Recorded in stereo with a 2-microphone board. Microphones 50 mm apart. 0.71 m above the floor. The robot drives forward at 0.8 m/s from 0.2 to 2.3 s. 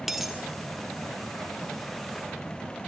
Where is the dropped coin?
5° right (ahead or behind), 0.7 m.